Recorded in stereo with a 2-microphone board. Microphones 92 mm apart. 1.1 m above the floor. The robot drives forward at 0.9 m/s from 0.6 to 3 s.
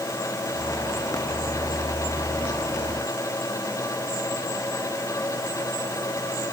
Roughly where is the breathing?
I don't hear breathing.